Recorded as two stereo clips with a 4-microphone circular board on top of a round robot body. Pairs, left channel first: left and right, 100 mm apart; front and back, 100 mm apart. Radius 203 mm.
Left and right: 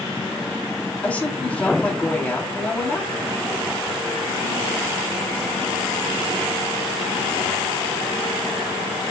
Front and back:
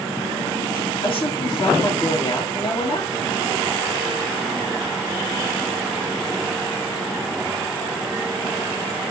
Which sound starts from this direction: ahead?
A woman speaking, at 1.0 s.